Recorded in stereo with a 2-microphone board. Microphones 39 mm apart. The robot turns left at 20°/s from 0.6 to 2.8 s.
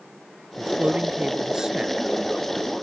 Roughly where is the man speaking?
Right.